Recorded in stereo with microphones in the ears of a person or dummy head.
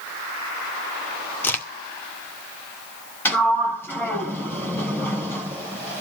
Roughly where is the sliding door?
Centre.